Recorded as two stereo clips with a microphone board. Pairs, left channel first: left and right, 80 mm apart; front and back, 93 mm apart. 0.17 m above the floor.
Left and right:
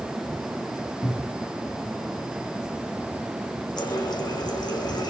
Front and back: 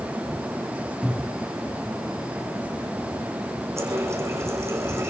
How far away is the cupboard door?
About 3 m.